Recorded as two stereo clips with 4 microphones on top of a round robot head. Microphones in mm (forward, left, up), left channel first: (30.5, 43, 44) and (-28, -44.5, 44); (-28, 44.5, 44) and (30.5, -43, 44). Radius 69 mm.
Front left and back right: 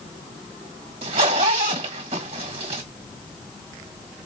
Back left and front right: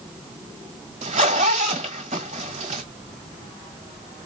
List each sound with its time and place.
1.0 s a zipper: 85° right, 1.6 m